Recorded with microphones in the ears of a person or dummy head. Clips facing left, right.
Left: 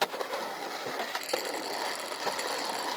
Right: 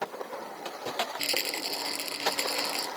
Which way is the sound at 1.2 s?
40° right (ahead or behind).